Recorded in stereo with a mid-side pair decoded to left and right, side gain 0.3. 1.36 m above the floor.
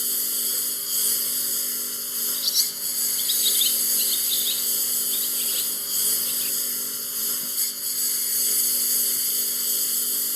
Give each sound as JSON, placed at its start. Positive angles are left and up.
{"t": 0.0, "sound": "a lawn mower", "azimuth_deg": 10}
{"t": 2.3, "sound": "a bird", "azimuth_deg": 30}